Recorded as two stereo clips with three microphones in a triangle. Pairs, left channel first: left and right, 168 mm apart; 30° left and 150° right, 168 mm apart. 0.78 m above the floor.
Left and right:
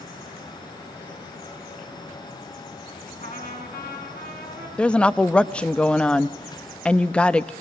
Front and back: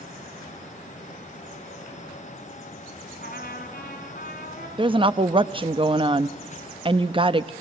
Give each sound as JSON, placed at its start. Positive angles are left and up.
{"t": 3.2, "sound": "a trumpet", "azimuth_deg": 60, "distance_m": 4.0}
{"t": 4.8, "sound": "a woman speaking", "azimuth_deg": 170, "distance_m": 0.6}